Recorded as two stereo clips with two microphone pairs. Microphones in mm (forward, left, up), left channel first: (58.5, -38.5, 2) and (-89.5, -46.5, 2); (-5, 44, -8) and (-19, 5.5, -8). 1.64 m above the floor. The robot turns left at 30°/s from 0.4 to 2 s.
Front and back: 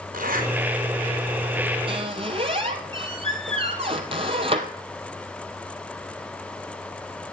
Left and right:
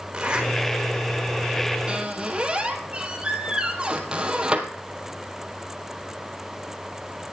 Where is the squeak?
160° right, 2 m; by 4.7 s 165° right, 2 m.